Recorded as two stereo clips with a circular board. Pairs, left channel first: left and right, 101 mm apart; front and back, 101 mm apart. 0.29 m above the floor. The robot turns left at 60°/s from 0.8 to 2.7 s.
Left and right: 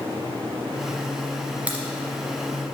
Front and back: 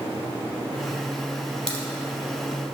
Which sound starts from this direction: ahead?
A crack, at 1.7 s.